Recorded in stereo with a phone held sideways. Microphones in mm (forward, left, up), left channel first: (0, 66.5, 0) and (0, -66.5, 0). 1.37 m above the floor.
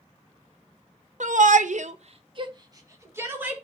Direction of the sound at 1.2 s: 75° right (ahead or behind).